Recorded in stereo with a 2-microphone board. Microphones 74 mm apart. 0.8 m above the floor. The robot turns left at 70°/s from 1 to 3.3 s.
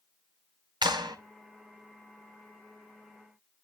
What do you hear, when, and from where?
0.8 s a clap: 80° right, 2.5 m; by 1.2 s 70° right (ahead or behind), 2.5 m